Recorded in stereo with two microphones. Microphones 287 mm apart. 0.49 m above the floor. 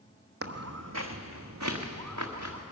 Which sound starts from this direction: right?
Footsteps, at 0.4 s.